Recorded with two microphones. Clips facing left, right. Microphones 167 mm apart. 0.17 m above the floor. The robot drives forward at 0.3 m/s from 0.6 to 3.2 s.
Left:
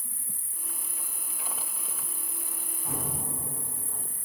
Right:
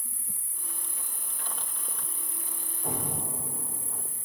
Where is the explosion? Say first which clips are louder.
Right 2 dB; 85° right, 4.5 m.